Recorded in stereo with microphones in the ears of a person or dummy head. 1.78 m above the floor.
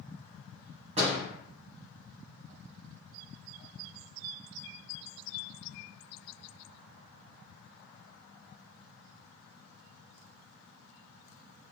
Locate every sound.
1.0 s a door slam: 35° right (ahead or behind), 1.2 m